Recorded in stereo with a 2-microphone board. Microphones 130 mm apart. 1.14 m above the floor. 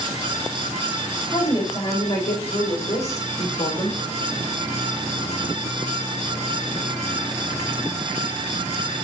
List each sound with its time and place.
1.3 s a woman speaking: 35° left (ahead or behind), 5 m; by 4.0 s 55° left (ahead or behind), 4 m